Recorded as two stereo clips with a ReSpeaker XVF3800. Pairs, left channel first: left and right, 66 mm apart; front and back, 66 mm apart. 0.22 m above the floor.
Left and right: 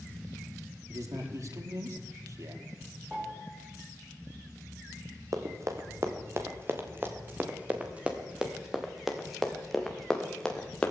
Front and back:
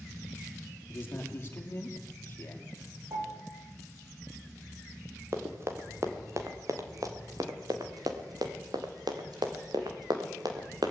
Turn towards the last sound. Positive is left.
turn(degrees=165)